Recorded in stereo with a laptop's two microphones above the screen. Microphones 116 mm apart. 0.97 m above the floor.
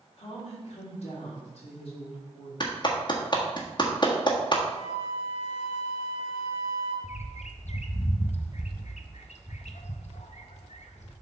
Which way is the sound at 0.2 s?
60° left (ahead or behind).